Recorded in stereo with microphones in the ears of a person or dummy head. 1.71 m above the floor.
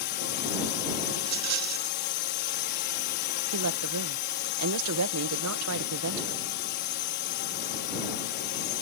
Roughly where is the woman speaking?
Right.